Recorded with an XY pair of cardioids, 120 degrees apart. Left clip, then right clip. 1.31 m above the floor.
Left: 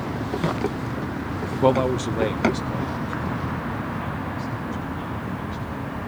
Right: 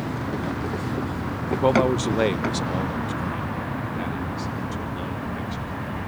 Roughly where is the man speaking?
Ahead.